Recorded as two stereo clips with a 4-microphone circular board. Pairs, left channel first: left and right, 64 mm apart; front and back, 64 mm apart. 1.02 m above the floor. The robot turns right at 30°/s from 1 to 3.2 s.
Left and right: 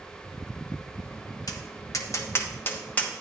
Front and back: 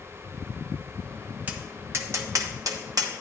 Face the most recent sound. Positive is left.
turn(degrees=165)